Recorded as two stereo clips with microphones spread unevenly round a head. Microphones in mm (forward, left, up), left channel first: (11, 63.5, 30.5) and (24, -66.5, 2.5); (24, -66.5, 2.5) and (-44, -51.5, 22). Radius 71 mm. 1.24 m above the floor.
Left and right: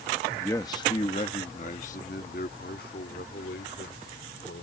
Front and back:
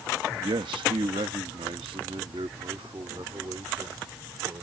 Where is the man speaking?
170° left; by 4.6 s 110° left.